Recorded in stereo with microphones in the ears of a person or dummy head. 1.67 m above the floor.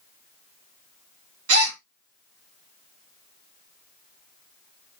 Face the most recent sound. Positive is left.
turn(degrees=-80)